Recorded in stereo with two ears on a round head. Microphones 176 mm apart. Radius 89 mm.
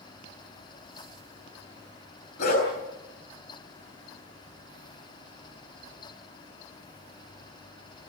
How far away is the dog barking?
About 7.5 m.